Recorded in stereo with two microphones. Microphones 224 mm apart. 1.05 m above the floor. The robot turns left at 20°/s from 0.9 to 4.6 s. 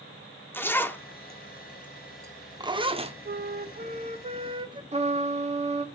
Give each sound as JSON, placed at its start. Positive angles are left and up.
{"t": 0.5, "sound": "a zipper", "side_deg": 10, "distance_m": 0.8}
{"t": 3.2, "sound": "a flute", "side_deg": -45, "distance_m": 0.6}
{"t": 4.9, "sound": "a trumpet", "side_deg": -25, "distance_m": 1.3}